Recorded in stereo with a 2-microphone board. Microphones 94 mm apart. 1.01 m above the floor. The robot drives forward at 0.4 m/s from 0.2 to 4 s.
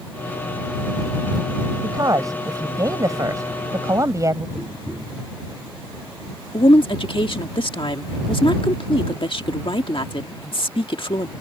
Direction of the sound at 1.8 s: 40° right (ahead or behind).